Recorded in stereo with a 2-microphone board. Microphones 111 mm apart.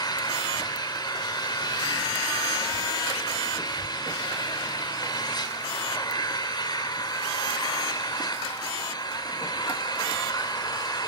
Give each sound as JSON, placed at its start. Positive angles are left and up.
{"t": 0.0, "sound": "an engine running", "side_deg": 40, "distance_m": 3.0}